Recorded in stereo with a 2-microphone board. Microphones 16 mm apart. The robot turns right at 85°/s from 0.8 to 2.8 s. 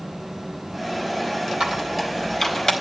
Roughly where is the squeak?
Right.